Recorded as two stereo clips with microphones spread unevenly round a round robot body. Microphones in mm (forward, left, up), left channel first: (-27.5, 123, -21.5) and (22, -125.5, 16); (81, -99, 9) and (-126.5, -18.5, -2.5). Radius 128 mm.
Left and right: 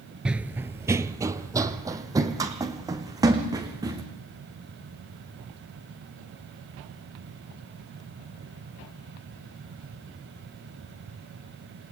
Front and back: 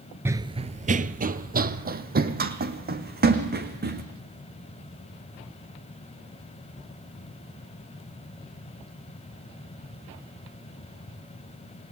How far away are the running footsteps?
About 0.6 m.